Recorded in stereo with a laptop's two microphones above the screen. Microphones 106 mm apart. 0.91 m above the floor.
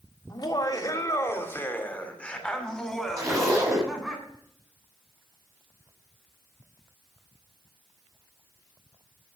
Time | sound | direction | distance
0.3 | laughter | 40° left (ahead or behind) | 1.9 m
3.2 | a zipper | 30° right (ahead or behind) | 5 m